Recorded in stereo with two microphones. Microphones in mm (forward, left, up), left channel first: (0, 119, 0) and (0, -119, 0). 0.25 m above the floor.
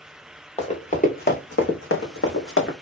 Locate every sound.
0.6 s running footsteps: 30° left (ahead or behind), 1.1 m; by 2.7 s 70° left (ahead or behind), 1.0 m